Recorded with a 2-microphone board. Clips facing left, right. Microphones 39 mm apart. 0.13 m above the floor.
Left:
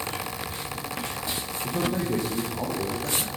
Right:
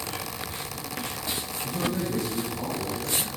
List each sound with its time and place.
1.6 s a man speaking: 65° left (ahead or behind), 3 m; by 3.3 s 75° left (ahead or behind), 4.5 m